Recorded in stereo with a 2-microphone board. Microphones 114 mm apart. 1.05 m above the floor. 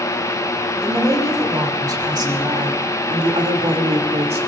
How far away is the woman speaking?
About 4 m.